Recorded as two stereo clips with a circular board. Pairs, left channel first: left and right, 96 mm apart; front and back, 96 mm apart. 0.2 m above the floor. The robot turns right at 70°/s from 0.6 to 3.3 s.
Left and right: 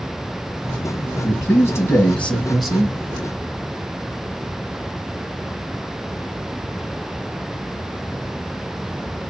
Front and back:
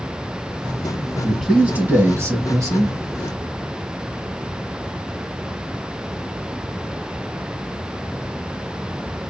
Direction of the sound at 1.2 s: 85° left.